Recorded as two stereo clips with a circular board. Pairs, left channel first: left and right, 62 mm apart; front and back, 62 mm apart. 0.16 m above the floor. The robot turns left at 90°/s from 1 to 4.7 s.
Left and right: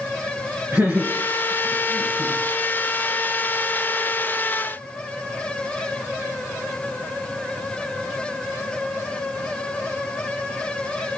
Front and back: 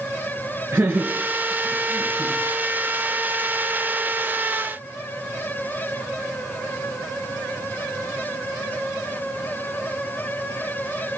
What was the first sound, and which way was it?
Laughter, 135° right.